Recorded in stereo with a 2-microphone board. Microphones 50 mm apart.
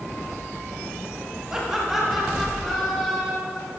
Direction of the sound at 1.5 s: 15° right (ahead or behind).